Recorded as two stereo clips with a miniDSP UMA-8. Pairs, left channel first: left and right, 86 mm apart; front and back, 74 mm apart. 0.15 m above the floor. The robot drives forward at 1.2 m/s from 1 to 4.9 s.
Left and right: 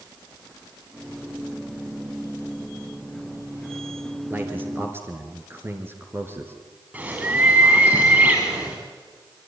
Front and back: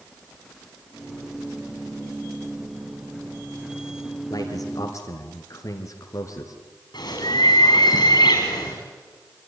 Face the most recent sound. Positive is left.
turn(degrees=-20)